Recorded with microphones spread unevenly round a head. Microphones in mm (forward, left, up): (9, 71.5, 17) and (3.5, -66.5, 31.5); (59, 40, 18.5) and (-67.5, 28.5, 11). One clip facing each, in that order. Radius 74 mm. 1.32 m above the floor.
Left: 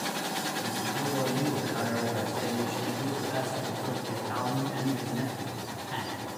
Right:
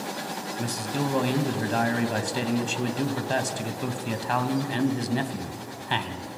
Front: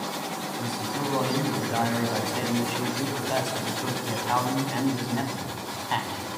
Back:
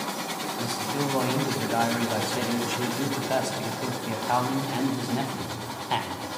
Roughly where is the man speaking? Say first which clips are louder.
Right 7 dB, back 2 dB; right.